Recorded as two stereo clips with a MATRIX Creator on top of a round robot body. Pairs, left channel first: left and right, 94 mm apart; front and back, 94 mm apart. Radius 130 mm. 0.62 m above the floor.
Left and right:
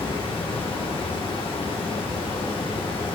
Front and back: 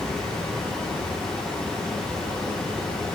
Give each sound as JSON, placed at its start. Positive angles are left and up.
{"t": 0.0, "sound": "running water", "azimuth_deg": 80, "distance_m": 1.7}